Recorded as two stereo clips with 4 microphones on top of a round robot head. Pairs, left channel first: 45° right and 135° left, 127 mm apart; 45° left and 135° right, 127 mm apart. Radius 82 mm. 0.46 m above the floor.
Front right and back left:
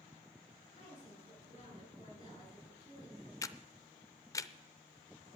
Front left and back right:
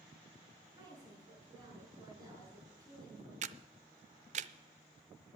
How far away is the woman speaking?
About 7 m.